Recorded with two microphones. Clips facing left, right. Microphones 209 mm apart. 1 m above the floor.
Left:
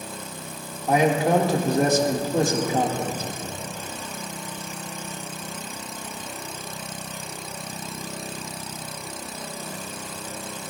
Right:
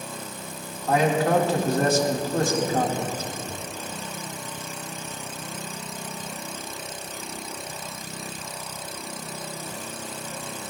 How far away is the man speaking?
About 1.7 m.